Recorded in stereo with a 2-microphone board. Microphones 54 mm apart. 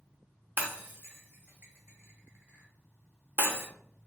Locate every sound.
0.6 s breaking glass: 40° right (ahead or behind), 0.7 m